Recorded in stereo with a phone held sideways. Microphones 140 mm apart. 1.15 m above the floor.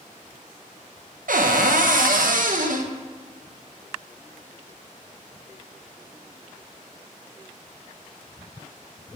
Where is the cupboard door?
75° right (ahead or behind), 0.6 m.